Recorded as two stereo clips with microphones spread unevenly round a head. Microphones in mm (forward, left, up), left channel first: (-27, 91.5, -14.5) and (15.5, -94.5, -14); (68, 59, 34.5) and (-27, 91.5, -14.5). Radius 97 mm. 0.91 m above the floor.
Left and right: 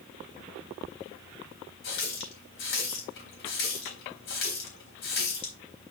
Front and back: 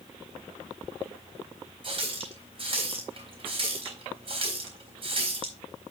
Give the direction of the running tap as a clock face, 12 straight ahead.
8 o'clock.